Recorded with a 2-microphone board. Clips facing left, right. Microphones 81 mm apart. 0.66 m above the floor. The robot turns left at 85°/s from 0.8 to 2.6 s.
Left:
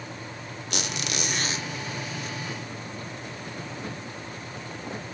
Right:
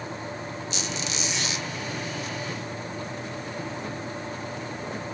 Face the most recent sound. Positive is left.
turn(degrees=-50)